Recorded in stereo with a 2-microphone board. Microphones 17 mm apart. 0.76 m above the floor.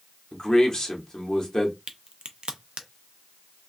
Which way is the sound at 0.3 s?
35° left (ahead or behind).